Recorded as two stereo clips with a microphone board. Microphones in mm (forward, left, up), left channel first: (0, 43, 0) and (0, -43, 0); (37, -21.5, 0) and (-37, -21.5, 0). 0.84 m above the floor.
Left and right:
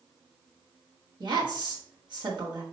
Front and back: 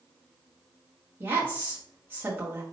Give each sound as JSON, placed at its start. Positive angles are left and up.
{"t": 1.2, "sound": "a woman speaking", "azimuth_deg": -115, "distance_m": 1.5}